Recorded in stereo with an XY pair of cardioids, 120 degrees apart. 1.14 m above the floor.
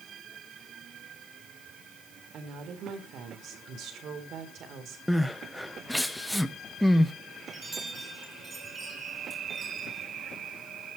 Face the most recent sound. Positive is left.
turn(degrees=-25)